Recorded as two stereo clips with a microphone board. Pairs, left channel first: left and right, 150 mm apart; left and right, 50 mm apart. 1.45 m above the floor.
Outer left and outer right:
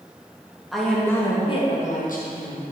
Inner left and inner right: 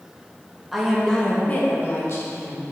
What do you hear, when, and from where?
0.7 s a woman speaking: centre (ahead or behind), 1.5 m; by 2.6 s 75° left (ahead or behind), 1.7 m